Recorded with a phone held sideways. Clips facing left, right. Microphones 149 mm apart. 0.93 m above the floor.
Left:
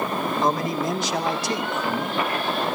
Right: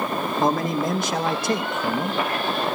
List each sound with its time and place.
0.4 s a man speaking: 55° right (ahead or behind), 2.5 m